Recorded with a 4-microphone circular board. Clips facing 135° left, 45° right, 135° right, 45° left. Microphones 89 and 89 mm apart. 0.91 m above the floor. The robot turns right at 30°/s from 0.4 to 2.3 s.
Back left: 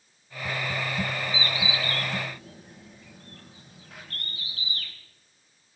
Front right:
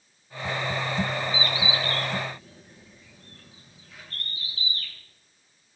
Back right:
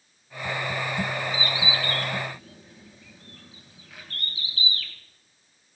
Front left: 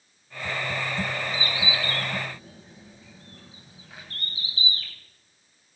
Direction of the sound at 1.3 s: 80° left.